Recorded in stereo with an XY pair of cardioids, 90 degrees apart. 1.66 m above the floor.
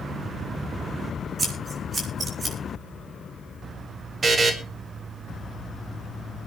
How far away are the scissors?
About 6 m.